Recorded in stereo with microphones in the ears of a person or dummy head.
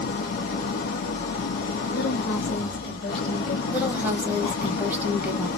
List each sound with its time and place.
0.0 s an engine running: 60° left (ahead or behind), 0.8 m
1.9 s a woman speaking: 60° left (ahead or behind), 1.1 m
3.7 s a woman speaking: 15° right (ahead or behind), 0.8 m